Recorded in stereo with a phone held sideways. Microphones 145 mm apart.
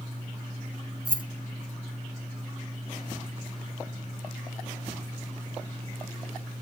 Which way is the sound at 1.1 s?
35° right (ahead or behind).